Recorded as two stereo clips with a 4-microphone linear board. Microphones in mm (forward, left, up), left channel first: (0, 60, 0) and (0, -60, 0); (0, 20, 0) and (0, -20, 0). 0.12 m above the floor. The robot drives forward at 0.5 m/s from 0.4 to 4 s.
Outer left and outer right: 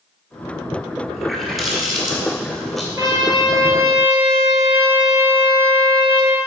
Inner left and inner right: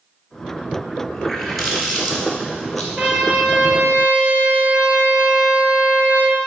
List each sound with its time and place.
1.1 s a running tap: centre (ahead or behind), 1.5 m
3.0 s a trumpet: 30° right (ahead or behind), 1.4 m; by 6.4 s 40° right (ahead or behind), 1.1 m